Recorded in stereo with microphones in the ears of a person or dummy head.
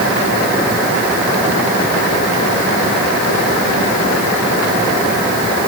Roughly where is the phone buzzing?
I don't hear a phone buzzing.